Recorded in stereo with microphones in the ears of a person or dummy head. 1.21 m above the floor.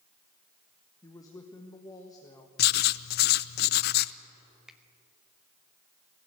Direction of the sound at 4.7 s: 5° right (ahead or behind).